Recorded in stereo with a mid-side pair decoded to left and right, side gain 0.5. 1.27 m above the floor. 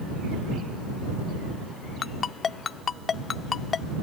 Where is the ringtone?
45° left.